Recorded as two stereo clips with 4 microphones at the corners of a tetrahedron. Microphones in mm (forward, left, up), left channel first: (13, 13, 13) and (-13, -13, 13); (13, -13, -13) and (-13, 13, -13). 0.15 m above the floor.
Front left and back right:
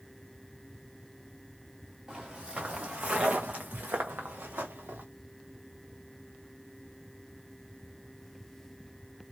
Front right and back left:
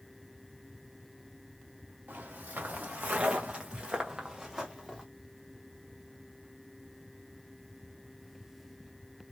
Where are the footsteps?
150° left, 1.3 m; by 5.0 s 135° right, 1.3 m.